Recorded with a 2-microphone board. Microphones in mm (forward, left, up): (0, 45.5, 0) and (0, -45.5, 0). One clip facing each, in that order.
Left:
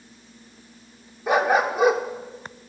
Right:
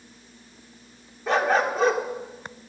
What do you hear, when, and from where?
1.3 s a dog barking: 10° left (ahead or behind), 1.3 m